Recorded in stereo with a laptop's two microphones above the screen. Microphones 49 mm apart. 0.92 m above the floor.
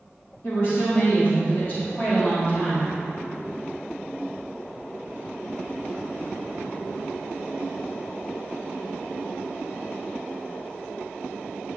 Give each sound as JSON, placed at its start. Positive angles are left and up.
{"t": 0.4, "sound": "a woman speaking", "side_deg": 65, "distance_m": 2.0}